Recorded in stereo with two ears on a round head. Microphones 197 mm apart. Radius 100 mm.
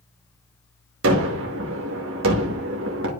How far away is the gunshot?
About 1.5 m.